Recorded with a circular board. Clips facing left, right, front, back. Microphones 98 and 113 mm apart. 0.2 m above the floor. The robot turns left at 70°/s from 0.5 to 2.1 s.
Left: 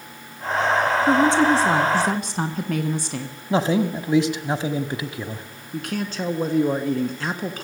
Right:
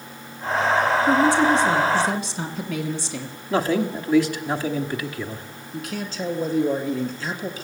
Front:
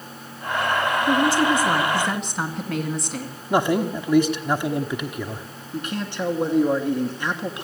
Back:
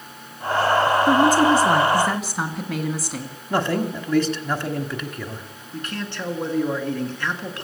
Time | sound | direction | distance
1.1 | a woman speaking | 170° left | 2 m
3.5 | a man speaking | 55° left | 1.3 m
5.7 | a man speaking | 75° left | 2 m